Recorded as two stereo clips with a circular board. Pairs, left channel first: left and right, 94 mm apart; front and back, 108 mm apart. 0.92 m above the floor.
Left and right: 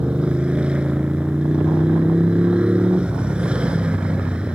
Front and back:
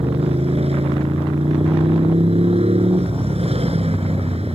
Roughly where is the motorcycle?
Behind.